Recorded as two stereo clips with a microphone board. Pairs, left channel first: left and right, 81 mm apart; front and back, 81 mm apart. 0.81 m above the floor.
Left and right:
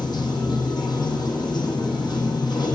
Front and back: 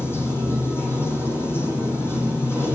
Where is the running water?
60° left, 3.5 m.